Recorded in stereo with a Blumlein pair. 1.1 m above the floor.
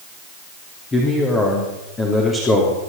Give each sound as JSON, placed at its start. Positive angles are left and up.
{"t": 0.9, "sound": "a man speaking", "azimuth_deg": 15, "distance_m": 3.5}